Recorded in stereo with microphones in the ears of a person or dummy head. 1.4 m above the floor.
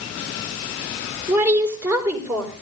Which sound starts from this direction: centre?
A woman speaking, at 1.3 s.